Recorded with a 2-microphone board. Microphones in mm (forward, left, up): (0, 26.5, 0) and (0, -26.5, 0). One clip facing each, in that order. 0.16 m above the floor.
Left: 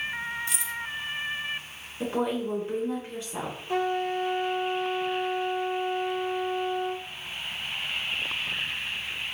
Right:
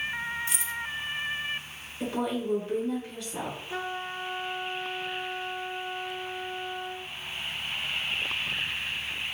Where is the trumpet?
60° left (ahead or behind), 0.7 m.